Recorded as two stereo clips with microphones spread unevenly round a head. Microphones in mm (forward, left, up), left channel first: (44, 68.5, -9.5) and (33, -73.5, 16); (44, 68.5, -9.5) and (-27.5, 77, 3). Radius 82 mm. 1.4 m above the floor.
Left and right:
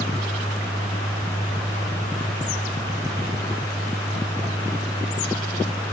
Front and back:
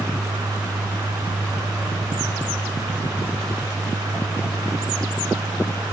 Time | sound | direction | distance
0.0 | a fan | 165° left | ?